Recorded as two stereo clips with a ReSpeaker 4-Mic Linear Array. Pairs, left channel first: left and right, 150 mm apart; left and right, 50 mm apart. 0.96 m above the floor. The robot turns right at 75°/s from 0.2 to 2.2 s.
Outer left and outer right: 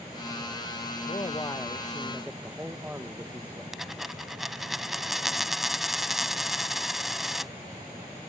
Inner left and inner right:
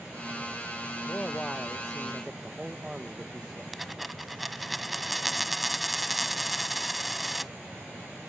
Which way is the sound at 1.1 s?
115° left.